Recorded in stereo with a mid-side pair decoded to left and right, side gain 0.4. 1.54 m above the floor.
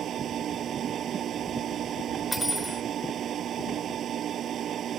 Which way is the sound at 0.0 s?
65° right.